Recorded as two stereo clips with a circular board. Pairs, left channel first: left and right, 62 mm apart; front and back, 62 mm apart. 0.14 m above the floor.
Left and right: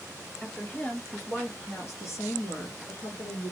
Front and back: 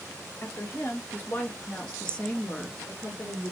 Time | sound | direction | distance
0.4 | a woman speaking | 25° left | 1.7 m